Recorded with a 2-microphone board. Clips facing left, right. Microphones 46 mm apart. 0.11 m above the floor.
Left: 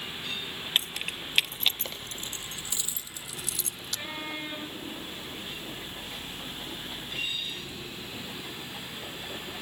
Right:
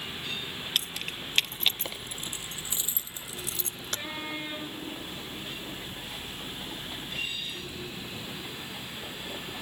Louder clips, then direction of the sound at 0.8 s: Left 3 dB; 25° left (ahead or behind).